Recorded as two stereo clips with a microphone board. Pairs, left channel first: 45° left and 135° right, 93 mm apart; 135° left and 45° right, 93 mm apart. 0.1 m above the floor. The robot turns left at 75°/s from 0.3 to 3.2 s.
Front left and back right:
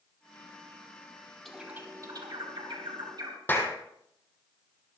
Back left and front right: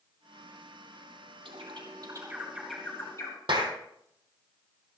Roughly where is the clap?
Ahead.